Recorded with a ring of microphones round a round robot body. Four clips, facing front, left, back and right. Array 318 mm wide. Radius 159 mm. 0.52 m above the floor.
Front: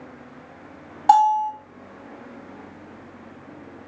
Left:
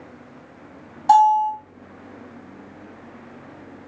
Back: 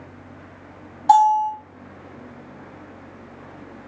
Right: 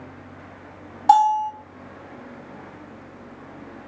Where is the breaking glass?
I don't hear breaking glass.